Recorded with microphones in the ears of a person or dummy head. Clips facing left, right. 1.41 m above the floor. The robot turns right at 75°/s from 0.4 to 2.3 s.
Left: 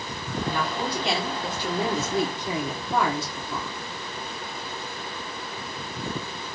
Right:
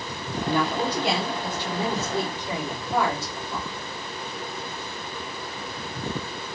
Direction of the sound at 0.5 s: 55° right.